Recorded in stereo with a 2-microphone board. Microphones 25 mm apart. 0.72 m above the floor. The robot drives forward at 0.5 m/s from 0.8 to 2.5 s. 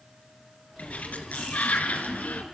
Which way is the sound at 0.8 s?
65° left (ahead or behind).